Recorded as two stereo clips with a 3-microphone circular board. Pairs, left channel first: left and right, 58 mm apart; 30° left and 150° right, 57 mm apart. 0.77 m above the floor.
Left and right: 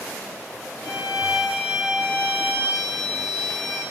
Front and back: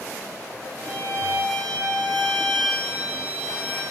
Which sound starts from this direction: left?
A violin, at 0.8 s.